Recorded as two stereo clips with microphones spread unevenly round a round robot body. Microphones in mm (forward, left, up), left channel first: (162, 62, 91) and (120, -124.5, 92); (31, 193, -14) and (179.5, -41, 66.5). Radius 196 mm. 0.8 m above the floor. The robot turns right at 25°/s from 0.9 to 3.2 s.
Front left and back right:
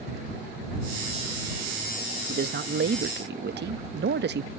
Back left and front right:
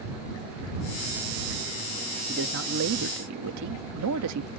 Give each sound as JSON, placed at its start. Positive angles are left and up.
{"t": 2.3, "sound": "a man speaking", "azimuth_deg": -120}